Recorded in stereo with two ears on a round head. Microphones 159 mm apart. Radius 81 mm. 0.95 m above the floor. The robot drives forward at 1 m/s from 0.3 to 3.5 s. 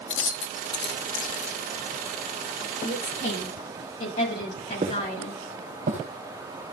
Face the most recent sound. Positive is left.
turn(degrees=-45)  # may be behind; listen again after turning